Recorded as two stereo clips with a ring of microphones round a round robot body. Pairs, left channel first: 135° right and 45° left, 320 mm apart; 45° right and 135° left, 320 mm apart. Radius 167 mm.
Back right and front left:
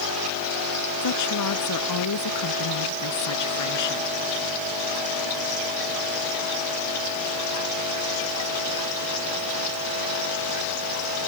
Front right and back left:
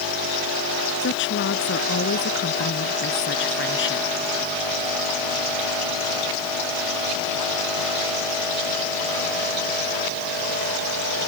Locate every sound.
1.0 s a woman speaking: 100° right